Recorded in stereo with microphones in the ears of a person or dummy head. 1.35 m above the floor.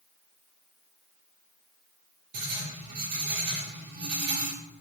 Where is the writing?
60° right (ahead or behind), 2 m.